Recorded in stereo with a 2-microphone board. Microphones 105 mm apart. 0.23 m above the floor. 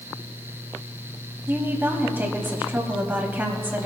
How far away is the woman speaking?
About 1.1 m.